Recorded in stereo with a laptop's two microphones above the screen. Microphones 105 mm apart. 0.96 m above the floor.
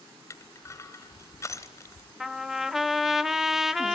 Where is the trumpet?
5° right (ahead or behind), 0.6 m.